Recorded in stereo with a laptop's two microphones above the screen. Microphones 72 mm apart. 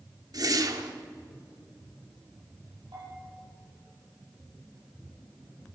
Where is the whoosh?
60° right (ahead or behind), 0.9 m.